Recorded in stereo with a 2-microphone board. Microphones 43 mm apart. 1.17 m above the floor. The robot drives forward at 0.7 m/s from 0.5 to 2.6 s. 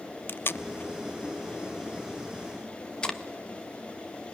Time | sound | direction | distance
0.3 | tape being pulled | 55° left (ahead or behind) | 0.7 m